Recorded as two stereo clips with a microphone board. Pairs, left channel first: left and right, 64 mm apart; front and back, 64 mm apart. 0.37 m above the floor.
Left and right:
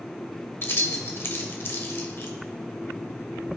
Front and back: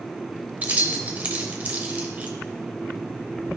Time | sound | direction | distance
0.6 | keys jangling | 125° left | 1.0 m